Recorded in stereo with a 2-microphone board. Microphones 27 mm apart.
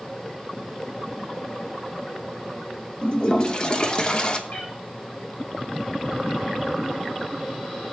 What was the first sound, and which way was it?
A toilet flushing, 35° left (ahead or behind).